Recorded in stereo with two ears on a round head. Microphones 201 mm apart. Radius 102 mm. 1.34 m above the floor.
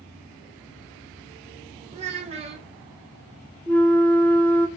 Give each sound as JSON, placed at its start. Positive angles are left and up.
{"t": 1.9, "sound": "a child speaking", "side_deg": -30, "distance_m": 0.6}
{"t": 3.7, "sound": "a flute", "side_deg": 5, "distance_m": 0.5}